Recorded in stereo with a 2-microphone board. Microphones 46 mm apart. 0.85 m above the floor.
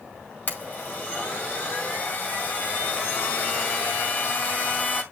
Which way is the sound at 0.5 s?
40° left (ahead or behind).